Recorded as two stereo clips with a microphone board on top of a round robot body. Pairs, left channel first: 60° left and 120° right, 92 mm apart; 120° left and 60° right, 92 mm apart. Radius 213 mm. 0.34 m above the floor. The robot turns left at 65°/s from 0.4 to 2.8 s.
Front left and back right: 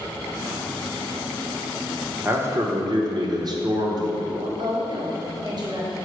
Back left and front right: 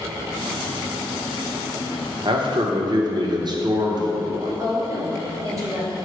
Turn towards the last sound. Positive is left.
turn(degrees=-100)